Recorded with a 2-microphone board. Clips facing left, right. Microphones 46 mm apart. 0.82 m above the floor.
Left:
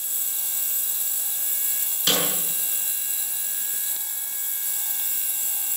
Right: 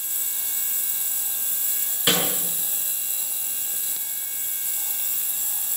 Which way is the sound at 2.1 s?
15° right (ahead or behind).